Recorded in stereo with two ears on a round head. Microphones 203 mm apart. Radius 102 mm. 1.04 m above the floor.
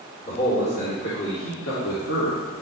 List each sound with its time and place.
0.2 s a man speaking: 45° left (ahead or behind), 3 m; by 2.4 s 80° left, 2.5 m